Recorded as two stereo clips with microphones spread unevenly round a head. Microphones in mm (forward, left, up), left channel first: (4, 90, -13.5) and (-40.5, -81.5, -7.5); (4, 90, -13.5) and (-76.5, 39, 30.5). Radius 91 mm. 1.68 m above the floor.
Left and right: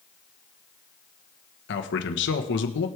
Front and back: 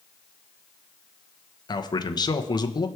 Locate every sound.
1.7 s a man speaking: 90° left, 1.3 m